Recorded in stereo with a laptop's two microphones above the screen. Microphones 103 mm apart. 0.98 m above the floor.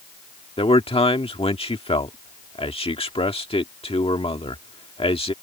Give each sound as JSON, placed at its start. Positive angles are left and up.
{"t": 0.6, "sound": "a man speaking", "side_deg": 65}